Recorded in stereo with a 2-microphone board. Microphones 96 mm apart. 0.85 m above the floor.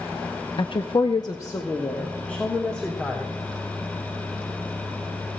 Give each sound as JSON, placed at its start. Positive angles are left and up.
{"t": 0.6, "sound": "a woman speaking", "side_deg": 55, "distance_m": 0.7}